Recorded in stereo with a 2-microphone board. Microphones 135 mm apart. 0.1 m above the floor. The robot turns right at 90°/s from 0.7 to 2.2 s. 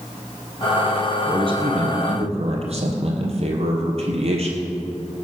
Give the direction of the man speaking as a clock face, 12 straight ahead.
5 o'clock.